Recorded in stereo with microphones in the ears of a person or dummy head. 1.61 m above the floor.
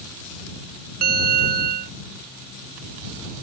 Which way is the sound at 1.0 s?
45° right (ahead or behind).